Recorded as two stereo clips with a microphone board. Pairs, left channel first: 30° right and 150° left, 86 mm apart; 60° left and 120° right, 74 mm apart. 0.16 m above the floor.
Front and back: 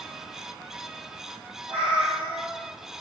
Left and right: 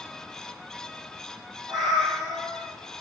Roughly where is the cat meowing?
Behind.